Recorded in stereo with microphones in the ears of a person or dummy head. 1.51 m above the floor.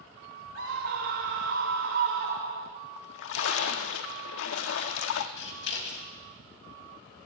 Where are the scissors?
65° left (ahead or behind), 2.5 m.